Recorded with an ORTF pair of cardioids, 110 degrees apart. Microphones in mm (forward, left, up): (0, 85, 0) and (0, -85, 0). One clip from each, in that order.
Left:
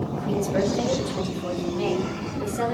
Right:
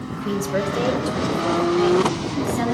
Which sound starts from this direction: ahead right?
A woman speaking, at 0.1 s.